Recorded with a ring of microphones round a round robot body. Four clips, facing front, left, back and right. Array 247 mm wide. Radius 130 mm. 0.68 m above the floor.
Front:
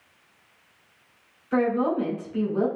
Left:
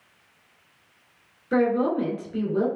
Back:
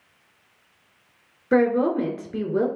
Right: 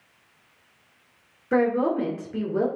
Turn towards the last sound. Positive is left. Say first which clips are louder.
# even, back 4 dB
turn(degrees=-165)